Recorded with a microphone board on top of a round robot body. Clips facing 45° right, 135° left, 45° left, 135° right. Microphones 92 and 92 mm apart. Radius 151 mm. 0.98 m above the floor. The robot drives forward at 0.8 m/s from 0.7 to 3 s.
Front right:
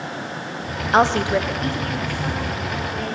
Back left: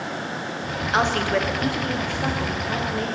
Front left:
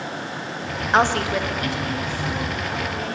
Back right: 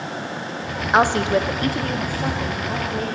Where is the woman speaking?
50° right, 0.6 m; by 3.1 s 170° right, 1.6 m.